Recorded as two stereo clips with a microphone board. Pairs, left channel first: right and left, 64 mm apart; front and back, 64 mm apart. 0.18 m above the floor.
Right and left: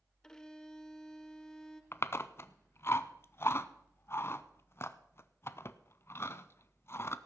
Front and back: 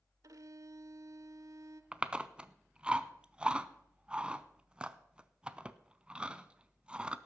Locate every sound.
0.2 s a violin: 165° right, 0.5 m
1.9 s chewing: 110° right, 0.5 m